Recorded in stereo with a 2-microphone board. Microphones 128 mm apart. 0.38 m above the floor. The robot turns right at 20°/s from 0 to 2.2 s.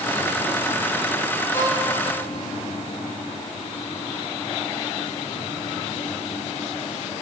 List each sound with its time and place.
1.5 s a violin: 25° left (ahead or behind), 9 m; by 1.9 s 30° left (ahead or behind), 9 m